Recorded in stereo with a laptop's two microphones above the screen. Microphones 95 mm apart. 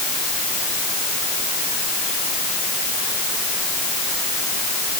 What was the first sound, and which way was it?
Only background noise.